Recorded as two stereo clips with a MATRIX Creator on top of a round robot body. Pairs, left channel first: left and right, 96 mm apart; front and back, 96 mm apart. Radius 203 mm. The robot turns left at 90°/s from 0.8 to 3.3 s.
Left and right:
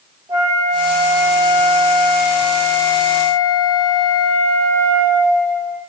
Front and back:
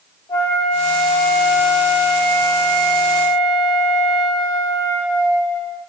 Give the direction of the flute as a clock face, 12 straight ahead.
1 o'clock.